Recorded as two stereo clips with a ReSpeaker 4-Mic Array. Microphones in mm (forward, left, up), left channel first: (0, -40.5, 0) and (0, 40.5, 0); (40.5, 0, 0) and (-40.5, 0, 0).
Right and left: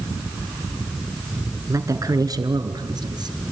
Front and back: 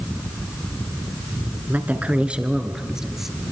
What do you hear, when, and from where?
1.7 s a woman speaking: 120° left, 1.9 m; by 3.4 s 95° left, 2.5 m